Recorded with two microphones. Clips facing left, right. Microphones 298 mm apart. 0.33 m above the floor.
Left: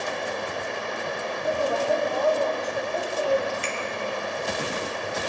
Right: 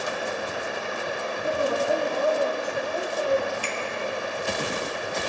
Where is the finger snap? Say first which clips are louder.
Left 1 dB; 25° left (ahead or behind), 1.3 m.